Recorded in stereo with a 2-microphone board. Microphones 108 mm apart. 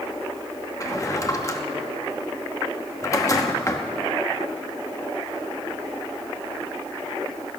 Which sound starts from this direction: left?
A drawer, at 0.8 s.